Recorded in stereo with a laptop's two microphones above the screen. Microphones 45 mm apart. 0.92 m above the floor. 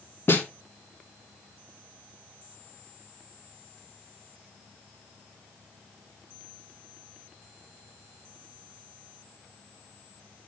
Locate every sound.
0.3 s a snare drum: 55° left (ahead or behind), 1.4 m